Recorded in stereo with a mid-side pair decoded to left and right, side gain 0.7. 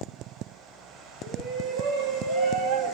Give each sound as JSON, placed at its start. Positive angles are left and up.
{"t": 1.2, "sound": "a shout", "azimuth_deg": -60, "distance_m": 6.5}